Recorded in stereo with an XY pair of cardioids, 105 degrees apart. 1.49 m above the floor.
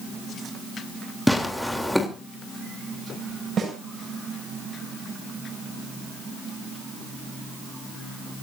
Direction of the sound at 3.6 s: 50° right.